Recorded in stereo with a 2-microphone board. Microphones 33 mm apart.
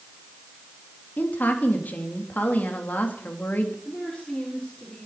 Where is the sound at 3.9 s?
25° left (ahead or behind), 5.5 m.